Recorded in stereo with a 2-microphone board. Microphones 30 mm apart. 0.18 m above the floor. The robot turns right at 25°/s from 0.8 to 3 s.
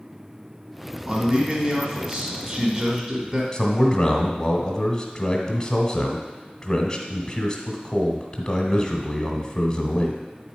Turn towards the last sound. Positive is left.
turn(degrees=20)  # may be behind; listen again after turning